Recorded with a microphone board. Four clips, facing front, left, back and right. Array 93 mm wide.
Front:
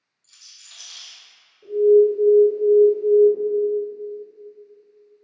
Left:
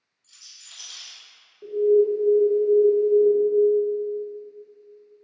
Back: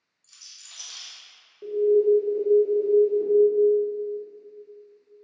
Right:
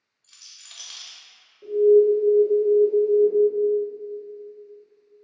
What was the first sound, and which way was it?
A rattle, 105° right.